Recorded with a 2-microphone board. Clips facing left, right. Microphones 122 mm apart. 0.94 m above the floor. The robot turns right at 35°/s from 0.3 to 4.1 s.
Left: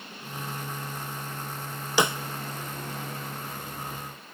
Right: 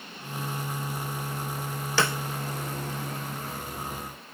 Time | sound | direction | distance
2.0 | a snare drum | 15° left (ahead or behind) | 0.5 m